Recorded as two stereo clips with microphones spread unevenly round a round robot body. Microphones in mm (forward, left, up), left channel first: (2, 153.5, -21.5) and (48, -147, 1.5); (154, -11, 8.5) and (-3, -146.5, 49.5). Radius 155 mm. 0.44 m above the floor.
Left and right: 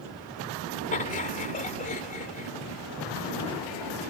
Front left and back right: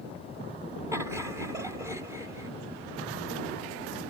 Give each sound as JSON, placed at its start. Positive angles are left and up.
{"t": 0.9, "sound": "laughter", "azimuth_deg": 135}